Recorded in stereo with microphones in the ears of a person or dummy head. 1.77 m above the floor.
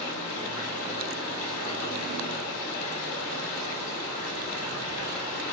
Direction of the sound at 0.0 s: 55° left (ahead or behind).